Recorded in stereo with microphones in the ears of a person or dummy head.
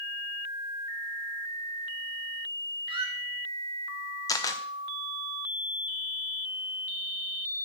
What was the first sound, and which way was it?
A squeak, 30° right (ahead or behind).